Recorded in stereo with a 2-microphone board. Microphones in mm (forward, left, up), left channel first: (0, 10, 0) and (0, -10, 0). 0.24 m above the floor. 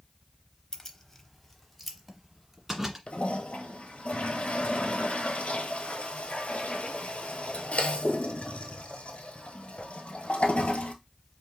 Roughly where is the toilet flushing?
Left.